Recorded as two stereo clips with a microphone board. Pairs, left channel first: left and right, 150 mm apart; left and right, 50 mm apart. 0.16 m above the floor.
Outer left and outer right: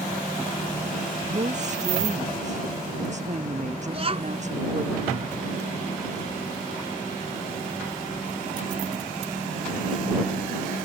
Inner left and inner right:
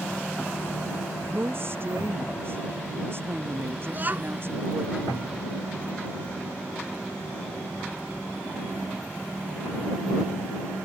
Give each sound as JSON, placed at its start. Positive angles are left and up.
{"t": 1.3, "sound": "a woman speaking", "side_deg": -50}
{"t": 3.9, "sound": "a child speaking", "side_deg": -40}